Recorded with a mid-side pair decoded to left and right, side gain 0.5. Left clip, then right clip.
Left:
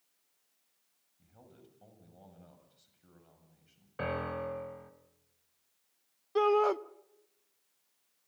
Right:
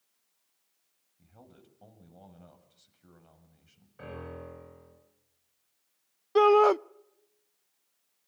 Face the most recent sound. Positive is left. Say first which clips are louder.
# right 7 dB
turn(degrees=-40)